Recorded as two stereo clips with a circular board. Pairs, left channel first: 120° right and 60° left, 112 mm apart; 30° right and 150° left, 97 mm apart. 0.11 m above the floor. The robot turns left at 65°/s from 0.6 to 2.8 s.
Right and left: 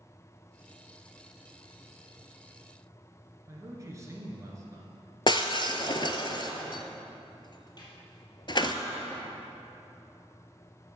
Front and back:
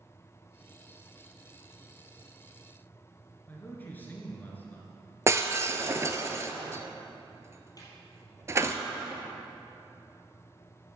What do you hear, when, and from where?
3.5 s a man speaking: 25° left, 1.9 m
5.3 s breaking glass: 155° right, 0.7 m
7.8 s a snare drum: 75° right, 2.5 m